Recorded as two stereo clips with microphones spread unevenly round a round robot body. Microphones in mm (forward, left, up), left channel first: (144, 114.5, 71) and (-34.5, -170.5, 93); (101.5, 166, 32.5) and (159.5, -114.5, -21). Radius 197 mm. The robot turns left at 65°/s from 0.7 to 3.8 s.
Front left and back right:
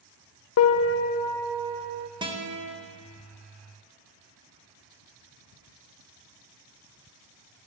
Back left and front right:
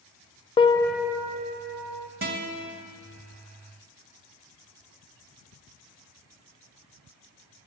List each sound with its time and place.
0.6 s a piano: 20° left, 0.5 m; by 2.1 s 70° right, 0.5 m
2.2 s a guitar: 45° right, 1.3 m; by 2.8 s 80° right, 1.3 m